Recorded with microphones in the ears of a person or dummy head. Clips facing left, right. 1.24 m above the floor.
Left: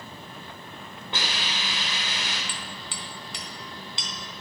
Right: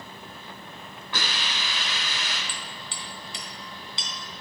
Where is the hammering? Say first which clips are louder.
Left 1 dB; 50° left (ahead or behind), 3 m.